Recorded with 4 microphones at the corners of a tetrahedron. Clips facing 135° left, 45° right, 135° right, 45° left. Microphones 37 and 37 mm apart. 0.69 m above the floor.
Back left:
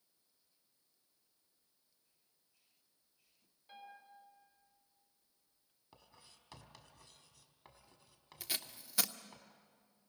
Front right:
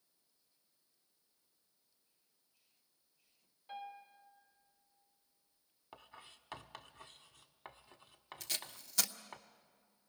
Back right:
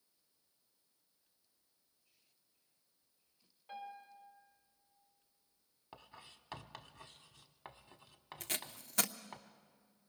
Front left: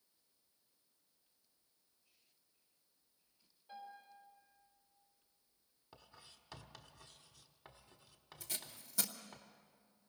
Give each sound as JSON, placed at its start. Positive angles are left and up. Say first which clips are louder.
{"t": 3.7, "sound": "a piano", "louder": "front right 7 dB, back right 4 dB", "azimuth_deg": -115, "distance_m": 4.0}
{"t": 5.9, "sound": "writing", "louder": "front right 8 dB, back right 5 dB", "azimuth_deg": -90, "distance_m": 1.0}
{"t": 8.4, "sound": "tape being pulled", "louder": "back left 1 dB, back right 5 dB", "azimuth_deg": -150, "distance_m": 0.8}